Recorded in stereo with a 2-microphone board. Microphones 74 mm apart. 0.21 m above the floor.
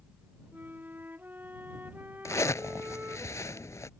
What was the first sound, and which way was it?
A flute, 25° right (ahead or behind).